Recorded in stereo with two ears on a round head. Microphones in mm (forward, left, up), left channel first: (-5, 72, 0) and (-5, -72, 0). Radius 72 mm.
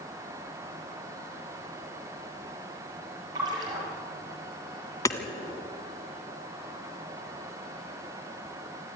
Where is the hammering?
20° left (ahead or behind), 1.8 m.